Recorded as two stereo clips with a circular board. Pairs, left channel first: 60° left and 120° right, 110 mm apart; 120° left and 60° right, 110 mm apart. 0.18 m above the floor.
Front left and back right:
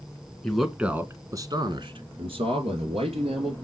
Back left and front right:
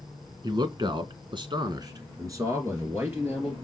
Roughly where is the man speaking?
Ahead right.